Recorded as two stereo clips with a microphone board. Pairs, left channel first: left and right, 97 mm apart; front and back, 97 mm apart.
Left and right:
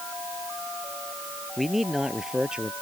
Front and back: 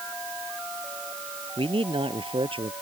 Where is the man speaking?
Straight behind; by 2.7 s 170° right.